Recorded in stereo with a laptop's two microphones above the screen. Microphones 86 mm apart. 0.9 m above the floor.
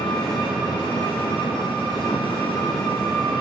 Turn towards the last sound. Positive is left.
turn(degrees=80)